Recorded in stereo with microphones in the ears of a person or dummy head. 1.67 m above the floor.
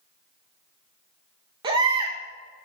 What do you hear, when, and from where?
1.6 s a baby crying: 25° right (ahead or behind), 1.4 m